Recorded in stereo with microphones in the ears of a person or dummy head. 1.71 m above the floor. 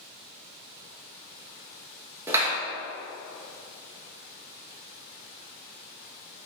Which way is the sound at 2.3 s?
15° right (ahead or behind).